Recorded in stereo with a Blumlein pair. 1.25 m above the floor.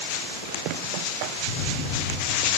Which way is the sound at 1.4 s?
65° left.